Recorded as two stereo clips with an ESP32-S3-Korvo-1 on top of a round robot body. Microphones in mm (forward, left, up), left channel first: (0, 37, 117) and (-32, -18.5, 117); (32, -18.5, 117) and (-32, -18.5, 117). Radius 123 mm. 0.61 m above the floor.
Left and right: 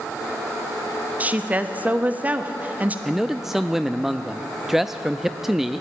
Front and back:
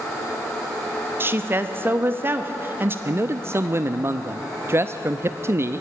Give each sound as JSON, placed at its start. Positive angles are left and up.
{"t": 1.2, "sound": "a woman speaking", "azimuth_deg": -165, "distance_m": 1.4}
{"t": 3.0, "sound": "a man speaking", "azimuth_deg": 155, "distance_m": 0.6}